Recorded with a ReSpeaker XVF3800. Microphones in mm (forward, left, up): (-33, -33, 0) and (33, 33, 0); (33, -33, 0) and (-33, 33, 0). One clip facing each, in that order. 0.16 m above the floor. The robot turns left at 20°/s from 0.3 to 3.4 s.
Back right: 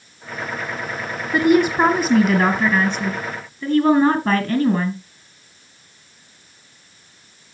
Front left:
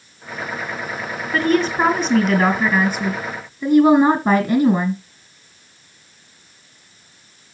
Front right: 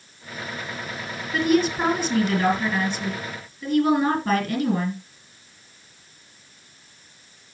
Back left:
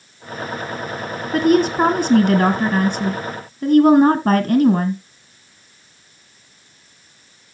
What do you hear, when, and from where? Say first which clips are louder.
1.3 s a woman speaking: back right 3 dB, back left 5 dB; 160° left, 1.8 m; by 5.0 s 115° left, 1.8 m